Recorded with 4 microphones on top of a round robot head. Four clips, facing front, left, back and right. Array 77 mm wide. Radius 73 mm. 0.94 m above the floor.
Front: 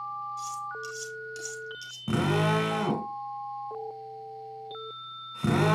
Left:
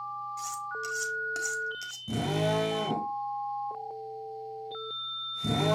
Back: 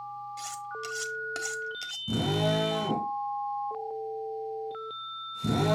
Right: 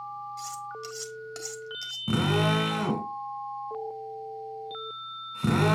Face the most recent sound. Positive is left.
turn(degrees=-45)